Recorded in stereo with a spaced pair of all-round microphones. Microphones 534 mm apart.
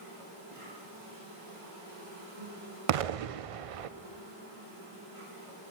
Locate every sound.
0.0 s an insect: 75° right (ahead or behind), 4.5 m
2.9 s an explosion: 85° right, 0.5 m